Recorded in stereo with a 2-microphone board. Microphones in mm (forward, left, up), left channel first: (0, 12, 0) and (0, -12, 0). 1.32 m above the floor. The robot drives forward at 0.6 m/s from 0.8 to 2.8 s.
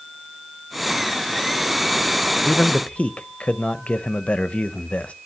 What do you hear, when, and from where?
2.5 s a man speaking: 70° left (ahead or behind), 0.7 m; by 5.1 s 60° left (ahead or behind), 0.8 m